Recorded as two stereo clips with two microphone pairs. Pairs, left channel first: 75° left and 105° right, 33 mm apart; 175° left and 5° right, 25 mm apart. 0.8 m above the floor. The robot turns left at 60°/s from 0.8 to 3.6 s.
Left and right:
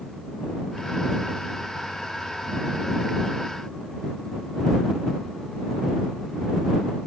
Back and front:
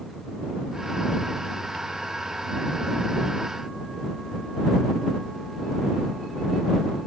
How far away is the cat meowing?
I don't hear a cat meowing.